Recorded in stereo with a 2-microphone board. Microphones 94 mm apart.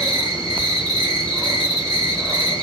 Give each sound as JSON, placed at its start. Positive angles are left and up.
{"t": 0.0, "sound": "an insect", "side_deg": -45, "distance_m": 1.1}